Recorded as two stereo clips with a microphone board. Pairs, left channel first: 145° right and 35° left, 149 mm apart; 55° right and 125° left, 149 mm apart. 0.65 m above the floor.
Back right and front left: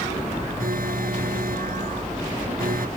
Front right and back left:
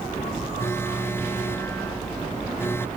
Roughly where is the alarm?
Ahead.